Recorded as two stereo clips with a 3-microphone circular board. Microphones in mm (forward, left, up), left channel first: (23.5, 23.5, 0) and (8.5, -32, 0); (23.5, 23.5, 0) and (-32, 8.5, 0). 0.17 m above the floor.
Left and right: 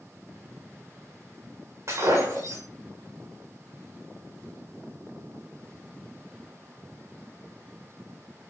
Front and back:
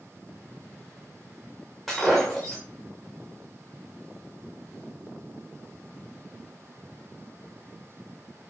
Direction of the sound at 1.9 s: 75° right.